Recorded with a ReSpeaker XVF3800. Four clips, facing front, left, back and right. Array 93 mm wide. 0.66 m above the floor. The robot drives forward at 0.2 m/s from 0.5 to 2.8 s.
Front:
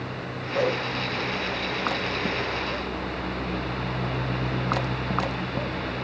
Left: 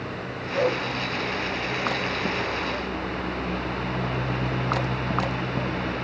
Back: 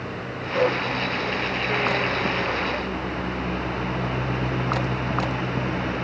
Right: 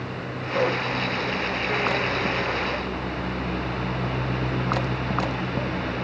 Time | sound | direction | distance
0.5 | a whoosh | 130° right | 6.5 m